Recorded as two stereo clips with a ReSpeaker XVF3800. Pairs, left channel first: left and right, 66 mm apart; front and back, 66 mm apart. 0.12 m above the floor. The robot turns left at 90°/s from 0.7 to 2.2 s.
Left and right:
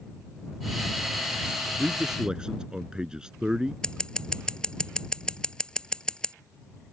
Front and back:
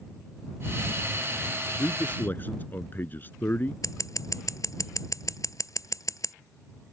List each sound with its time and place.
1.8 s a man speaking: 15° left; by 3.7 s 20° right
3.8 s scissors: 15° left